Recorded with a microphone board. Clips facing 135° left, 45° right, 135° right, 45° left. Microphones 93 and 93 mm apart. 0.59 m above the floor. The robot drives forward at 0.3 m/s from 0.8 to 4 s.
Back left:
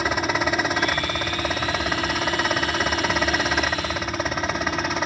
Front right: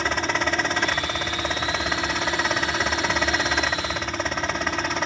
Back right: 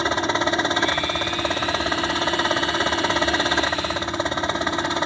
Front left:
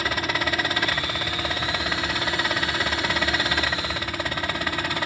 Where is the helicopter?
150° right; by 5.1 s 140° right.